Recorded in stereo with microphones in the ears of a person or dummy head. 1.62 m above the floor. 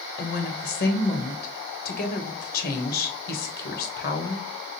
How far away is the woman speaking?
About 1.1 m.